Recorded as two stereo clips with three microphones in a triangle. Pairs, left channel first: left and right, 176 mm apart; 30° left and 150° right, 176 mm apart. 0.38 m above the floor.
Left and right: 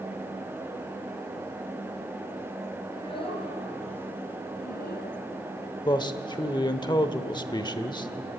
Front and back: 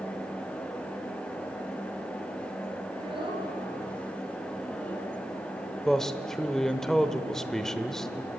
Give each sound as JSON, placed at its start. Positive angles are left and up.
{"t": 2.9, "sound": "a child speaking", "azimuth_deg": 155, "distance_m": 4.0}
{"t": 5.8, "sound": "a man speaking", "azimuth_deg": 115, "distance_m": 0.8}